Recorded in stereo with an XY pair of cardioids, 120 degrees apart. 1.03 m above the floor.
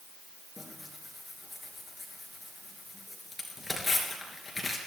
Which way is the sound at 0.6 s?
20° left.